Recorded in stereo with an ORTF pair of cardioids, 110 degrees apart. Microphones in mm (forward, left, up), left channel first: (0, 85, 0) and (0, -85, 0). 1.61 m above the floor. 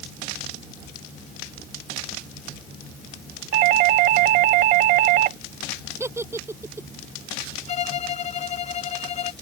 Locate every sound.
3.5 s a doorbell: 60° right
6.0 s a giggle: 15° right
7.7 s a violin: 45° left